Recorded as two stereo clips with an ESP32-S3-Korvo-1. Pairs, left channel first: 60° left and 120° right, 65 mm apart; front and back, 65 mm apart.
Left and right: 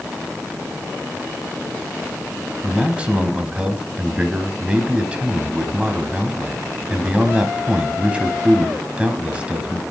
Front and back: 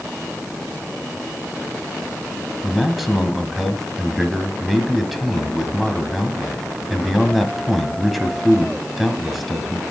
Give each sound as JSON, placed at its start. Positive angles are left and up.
{"t": 2.6, "sound": "a man speaking", "azimuth_deg": -95, "distance_m": 1.1}